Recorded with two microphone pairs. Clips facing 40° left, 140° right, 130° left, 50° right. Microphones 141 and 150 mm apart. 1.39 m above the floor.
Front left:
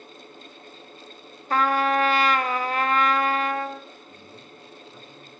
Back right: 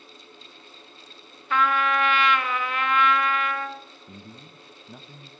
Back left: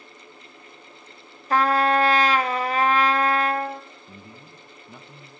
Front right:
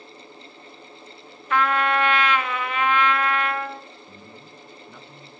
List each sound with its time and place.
1.5 s a trumpet: 85° left, 0.6 m
4.1 s a man speaking: 160° right, 0.8 m